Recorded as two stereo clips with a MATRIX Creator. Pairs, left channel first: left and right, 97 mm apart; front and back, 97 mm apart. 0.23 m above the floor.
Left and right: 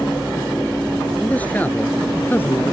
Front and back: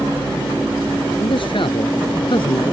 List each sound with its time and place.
1.2 s a man speaking: 15° left; by 2.7 s 25° left